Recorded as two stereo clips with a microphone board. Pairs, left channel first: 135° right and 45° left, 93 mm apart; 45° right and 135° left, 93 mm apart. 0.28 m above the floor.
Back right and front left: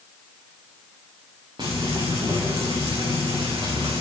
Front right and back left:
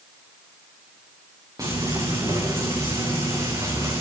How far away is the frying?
About 5 m.